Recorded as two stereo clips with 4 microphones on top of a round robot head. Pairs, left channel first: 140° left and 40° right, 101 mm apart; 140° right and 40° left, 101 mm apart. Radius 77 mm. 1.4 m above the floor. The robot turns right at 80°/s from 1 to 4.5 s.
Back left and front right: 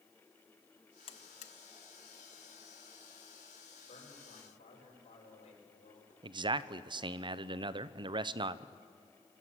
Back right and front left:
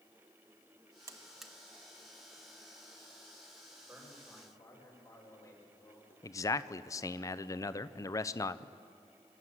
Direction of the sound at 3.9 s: 110° left.